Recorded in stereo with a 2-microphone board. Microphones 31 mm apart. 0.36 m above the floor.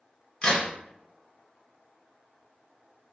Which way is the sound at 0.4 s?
30° left (ahead or behind).